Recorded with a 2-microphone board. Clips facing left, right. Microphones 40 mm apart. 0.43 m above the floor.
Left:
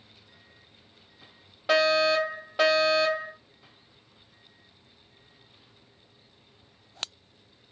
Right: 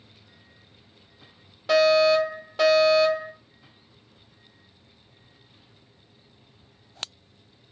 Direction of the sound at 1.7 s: 20° left (ahead or behind).